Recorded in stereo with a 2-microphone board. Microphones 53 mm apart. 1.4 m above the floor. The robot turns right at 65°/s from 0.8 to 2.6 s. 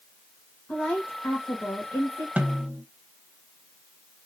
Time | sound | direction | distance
0.7 | a woman speaking | 20° left | 1.4 m
2.4 | a snare drum | 25° right (ahead or behind) | 1.0 m